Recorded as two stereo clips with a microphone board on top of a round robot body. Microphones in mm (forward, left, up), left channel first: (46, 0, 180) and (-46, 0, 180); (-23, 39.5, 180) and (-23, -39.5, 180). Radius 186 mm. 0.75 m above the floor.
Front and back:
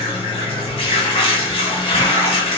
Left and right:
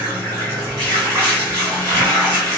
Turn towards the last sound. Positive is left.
turn(degrees=-35)